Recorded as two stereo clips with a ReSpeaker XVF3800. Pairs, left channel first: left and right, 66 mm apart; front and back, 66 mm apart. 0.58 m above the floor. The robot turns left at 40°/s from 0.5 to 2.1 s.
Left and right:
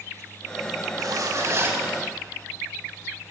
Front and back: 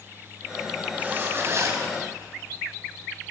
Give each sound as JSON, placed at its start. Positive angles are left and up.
{"t": 1.0, "sound": "a zipper", "azimuth_deg": -115, "distance_m": 5.0}